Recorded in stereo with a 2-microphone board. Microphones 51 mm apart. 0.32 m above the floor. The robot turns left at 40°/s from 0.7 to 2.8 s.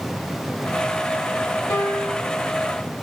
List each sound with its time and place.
1.7 s a piano: 65° left (ahead or behind), 2.5 m; by 2.3 s 50° left (ahead or behind), 2.5 m